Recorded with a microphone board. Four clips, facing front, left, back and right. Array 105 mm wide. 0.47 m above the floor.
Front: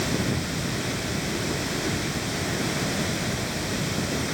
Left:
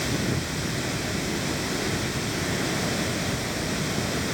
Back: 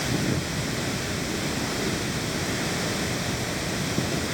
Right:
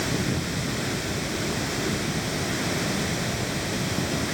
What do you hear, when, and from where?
Only background noise.